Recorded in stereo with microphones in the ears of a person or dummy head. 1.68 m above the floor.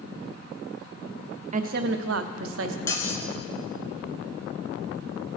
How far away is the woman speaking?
About 0.6 m.